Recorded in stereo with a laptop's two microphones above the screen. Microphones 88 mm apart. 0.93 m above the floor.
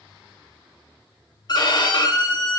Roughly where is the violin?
Left.